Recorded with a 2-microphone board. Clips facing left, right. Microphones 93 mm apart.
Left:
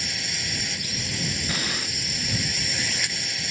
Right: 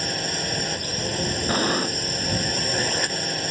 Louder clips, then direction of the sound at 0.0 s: Right 7 dB; 45° right (ahead or behind).